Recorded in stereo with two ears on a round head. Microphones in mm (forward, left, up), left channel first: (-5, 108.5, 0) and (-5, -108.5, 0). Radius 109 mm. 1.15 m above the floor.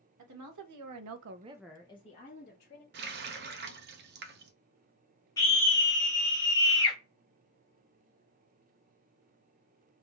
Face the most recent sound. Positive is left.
turn(degrees=15)  # may be behind; listen again after turning